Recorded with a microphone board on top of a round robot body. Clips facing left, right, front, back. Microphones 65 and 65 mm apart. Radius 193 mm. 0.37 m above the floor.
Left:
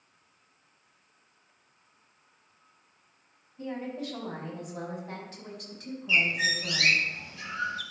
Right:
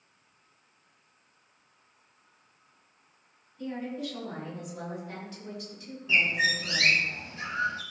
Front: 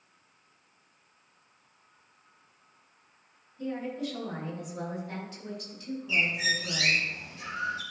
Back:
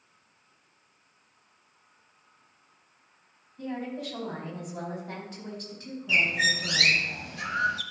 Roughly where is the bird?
Behind right.